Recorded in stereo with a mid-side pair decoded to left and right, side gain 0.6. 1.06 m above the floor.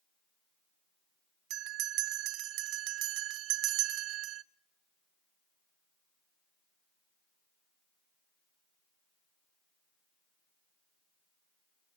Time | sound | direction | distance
1.5 | a bell | 65° right | 0.6 m